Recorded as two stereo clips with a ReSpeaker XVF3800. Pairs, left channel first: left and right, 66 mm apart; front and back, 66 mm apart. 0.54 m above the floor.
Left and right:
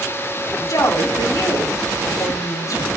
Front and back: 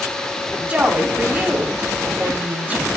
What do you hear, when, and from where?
0.7 s a woman speaking: 115° left, 3 m